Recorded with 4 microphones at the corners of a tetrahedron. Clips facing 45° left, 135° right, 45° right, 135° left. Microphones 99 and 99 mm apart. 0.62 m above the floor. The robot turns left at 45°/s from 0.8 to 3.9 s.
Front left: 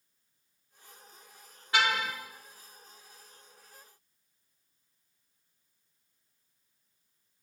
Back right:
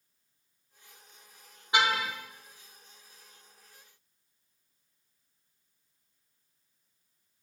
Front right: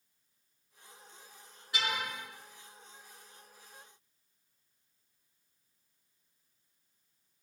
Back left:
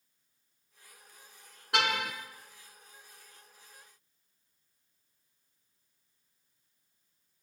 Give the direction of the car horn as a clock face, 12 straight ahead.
7 o'clock.